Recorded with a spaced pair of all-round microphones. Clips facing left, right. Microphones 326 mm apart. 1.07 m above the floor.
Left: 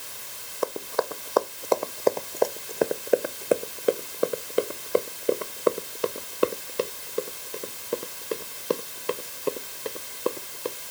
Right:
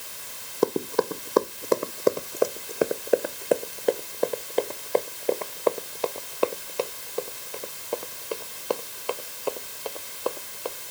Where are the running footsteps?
50° right (ahead or behind); by 10.7 s 25° left (ahead or behind).